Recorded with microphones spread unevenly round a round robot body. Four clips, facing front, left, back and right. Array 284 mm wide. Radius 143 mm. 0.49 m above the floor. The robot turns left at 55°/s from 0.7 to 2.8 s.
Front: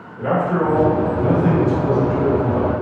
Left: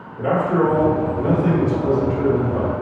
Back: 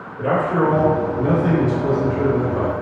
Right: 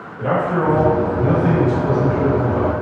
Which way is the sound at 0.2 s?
85° left.